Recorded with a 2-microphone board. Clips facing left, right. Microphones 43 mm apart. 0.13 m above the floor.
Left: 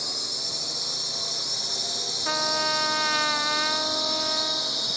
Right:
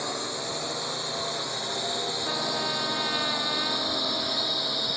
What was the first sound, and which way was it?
A drone, 30° right (ahead or behind).